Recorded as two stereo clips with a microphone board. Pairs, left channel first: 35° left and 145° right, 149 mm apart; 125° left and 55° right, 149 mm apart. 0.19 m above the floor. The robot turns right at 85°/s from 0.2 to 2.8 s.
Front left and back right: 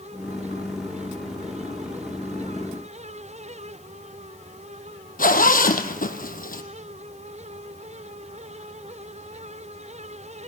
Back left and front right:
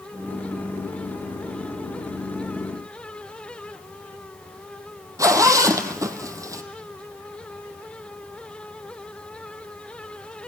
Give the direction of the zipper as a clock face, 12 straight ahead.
12 o'clock.